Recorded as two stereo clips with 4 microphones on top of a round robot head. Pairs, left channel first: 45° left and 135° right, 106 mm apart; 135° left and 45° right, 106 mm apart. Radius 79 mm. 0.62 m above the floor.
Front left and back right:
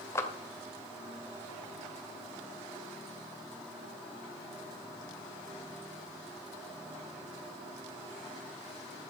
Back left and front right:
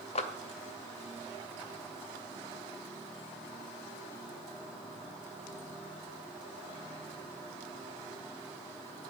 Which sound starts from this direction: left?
A clap, at 0.1 s.